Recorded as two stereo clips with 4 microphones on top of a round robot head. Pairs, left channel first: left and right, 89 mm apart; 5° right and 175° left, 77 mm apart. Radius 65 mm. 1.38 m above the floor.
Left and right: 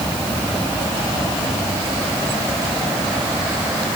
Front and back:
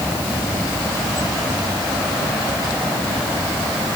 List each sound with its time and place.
Only background noise.